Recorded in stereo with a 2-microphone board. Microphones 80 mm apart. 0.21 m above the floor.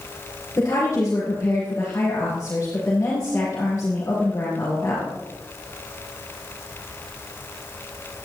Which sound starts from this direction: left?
A woman speaking, at 0.6 s.